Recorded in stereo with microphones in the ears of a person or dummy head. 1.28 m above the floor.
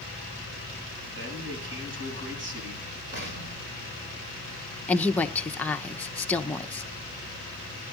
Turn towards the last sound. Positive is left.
turn(degrees=5)  # may be behind; listen again after turning